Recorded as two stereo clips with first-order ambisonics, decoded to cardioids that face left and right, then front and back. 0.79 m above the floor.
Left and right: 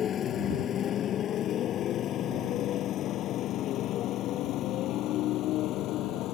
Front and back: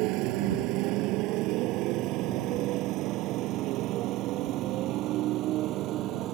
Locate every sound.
0.0 s a motorcycle: 150° left; by 6.3 s 135° left